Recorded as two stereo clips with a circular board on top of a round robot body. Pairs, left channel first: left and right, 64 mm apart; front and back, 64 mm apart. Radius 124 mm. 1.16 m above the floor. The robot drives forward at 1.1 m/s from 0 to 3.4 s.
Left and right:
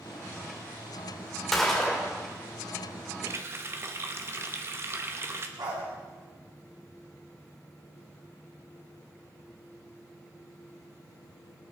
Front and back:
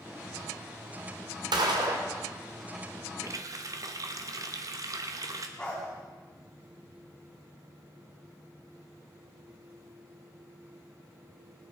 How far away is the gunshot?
About 1.5 m.